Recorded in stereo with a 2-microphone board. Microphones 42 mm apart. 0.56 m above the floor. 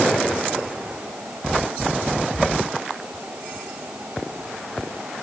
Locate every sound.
Only background noise.